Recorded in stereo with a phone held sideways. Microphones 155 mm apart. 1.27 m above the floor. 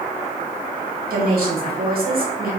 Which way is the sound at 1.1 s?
75° right (ahead or behind).